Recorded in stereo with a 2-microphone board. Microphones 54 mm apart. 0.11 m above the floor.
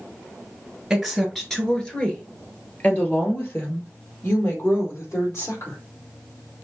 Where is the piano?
No piano in this recording.